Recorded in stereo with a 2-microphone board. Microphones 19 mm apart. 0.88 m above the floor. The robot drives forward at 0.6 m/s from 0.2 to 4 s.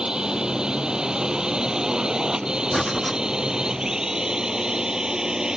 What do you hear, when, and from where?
0.0 s a drone: 50° right (ahead or behind); by 5.6 s 45° right (ahead or behind)
2.7 s breathing: 10° left (ahead or behind); by 3.2 s 15° left (ahead or behind)